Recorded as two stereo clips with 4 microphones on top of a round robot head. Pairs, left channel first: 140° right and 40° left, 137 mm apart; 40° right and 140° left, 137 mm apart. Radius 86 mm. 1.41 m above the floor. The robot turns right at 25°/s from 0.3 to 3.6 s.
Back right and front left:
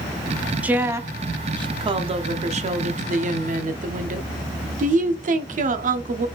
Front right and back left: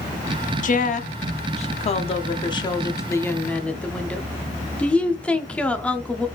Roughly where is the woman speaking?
Ahead right.